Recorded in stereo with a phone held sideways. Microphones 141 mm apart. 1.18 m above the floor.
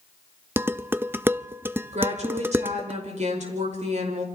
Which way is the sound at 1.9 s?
55° right (ahead or behind).